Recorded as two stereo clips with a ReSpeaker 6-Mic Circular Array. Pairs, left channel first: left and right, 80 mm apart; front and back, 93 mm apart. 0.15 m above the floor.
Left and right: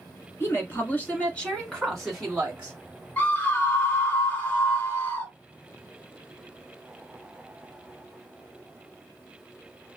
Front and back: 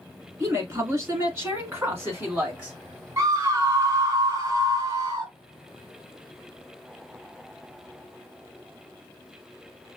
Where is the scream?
145° left, 1.9 m.